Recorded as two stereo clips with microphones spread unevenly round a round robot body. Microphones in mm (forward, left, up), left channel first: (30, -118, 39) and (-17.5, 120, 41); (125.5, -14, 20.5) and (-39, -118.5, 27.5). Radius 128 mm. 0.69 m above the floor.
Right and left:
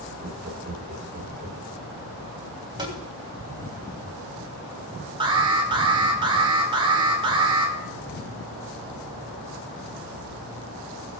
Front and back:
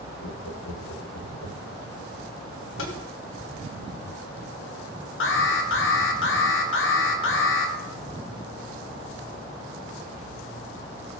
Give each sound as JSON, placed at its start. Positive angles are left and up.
{"t": 0.2, "sound": "laughter", "azimuth_deg": 45, "distance_m": 2.0}
{"t": 2.8, "sound": "tapping", "azimuth_deg": 25, "distance_m": 3.0}
{"t": 5.2, "sound": "an alarm", "azimuth_deg": 30, "distance_m": 2.5}